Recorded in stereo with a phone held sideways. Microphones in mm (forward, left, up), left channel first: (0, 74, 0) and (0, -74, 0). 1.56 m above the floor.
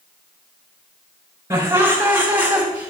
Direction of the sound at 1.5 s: 20° right (ahead or behind).